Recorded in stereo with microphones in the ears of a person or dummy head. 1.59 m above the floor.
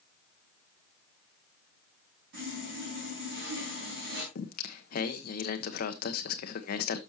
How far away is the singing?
About 0.9 m.